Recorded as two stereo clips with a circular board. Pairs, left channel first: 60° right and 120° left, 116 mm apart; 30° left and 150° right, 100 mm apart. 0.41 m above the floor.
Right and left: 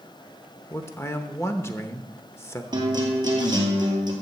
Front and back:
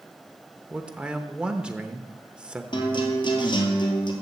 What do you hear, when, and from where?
0.7 s a man speaking: 85° right, 0.9 m
2.7 s a guitar: 70° left, 2.5 m